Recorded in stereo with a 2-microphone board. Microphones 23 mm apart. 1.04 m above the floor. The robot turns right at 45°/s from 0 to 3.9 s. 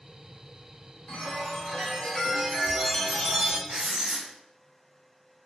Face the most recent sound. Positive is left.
turn(degrees=-60)  # may be behind; listen again after turning